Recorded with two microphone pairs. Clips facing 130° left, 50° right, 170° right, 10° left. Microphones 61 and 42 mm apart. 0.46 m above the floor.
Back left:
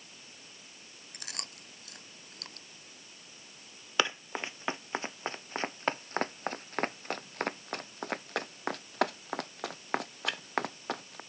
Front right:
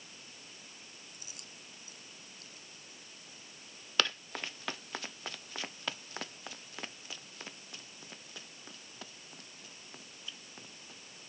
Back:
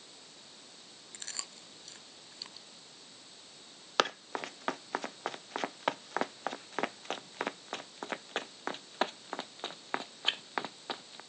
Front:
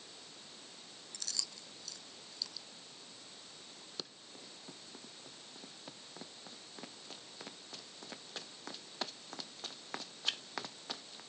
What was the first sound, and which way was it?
Chewing, 135° left.